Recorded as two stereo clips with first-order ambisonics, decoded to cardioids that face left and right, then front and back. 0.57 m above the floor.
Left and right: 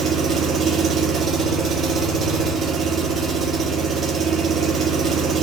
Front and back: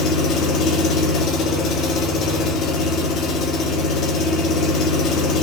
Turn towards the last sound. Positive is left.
turn(degrees=-35)